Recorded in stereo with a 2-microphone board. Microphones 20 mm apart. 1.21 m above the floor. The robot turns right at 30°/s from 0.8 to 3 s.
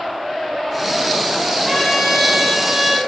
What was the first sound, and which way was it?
A trumpet, straight behind.